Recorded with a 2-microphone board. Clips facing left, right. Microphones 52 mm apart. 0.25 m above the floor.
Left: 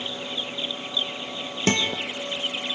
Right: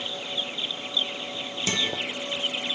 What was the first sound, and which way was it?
A guitar, 50° left (ahead or behind).